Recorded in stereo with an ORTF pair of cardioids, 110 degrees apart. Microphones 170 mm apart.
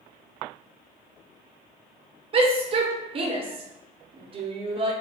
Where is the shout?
35° right, 1.1 m.